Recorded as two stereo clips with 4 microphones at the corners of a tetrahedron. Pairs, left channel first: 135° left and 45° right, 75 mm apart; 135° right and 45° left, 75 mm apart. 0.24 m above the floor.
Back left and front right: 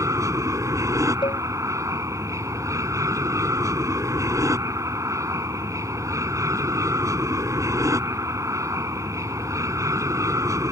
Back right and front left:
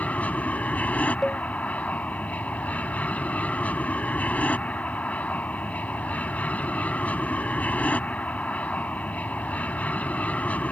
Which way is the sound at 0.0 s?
70° right.